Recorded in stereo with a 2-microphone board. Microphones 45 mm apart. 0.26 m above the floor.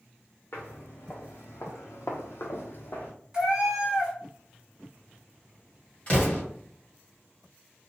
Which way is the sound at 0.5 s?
50° left (ahead or behind).